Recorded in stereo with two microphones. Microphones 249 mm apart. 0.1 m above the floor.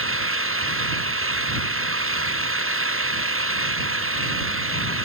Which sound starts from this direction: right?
An engine running, at 0.0 s.